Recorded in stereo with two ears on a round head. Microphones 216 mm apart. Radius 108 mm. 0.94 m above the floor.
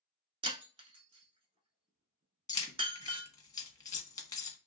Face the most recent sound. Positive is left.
turn(degrees=15)  # may be behind; listen again after turning